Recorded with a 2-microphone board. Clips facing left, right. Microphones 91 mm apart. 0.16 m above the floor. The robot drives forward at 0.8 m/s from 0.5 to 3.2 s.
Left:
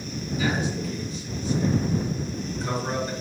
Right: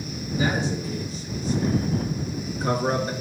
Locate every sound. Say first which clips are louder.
0.4 s a man speaking: right 2 dB; 30° right (ahead or behind), 3 m; by 3.1 s 50° right (ahead or behind), 2 m